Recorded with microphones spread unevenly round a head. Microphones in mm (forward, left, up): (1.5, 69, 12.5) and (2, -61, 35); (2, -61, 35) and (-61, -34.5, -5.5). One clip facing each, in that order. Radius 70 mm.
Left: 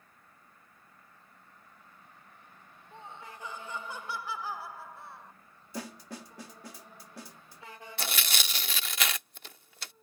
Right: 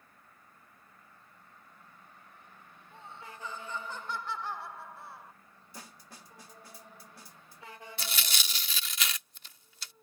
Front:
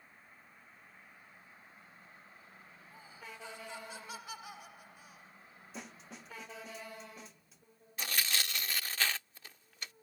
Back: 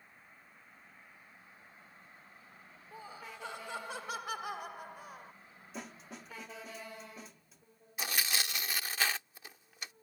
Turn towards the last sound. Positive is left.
turn(degrees=50)